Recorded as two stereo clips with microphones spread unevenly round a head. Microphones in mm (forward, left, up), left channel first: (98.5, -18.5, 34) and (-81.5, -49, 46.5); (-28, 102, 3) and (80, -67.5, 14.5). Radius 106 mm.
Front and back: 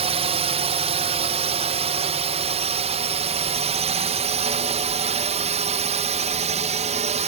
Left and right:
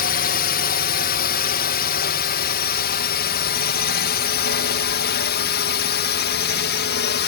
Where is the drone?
140° left.